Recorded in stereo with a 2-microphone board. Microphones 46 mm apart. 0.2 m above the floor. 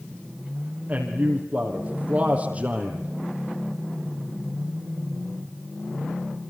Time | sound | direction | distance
0.9 | a man speaking | 35° right (ahead or behind) | 6.5 m